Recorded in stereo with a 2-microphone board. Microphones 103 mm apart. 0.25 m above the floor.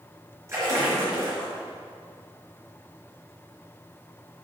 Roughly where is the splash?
Right.